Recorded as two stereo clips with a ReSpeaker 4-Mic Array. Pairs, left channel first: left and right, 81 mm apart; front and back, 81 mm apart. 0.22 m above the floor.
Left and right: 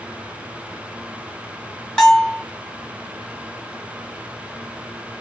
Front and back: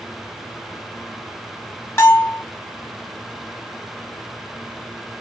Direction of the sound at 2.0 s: 20° left.